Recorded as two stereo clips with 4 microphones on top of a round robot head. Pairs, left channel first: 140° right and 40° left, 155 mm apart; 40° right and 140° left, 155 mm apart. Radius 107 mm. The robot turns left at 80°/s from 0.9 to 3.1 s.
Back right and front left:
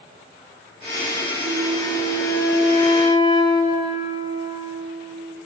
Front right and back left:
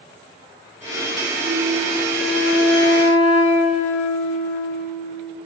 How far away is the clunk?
No clunk in this recording.